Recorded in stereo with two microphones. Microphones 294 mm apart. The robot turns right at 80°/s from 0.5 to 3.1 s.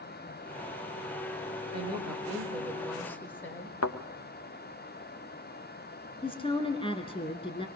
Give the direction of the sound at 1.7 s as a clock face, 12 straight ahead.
3 o'clock.